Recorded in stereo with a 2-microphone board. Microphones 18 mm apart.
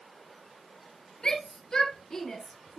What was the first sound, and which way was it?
A shout, 50° left (ahead or behind).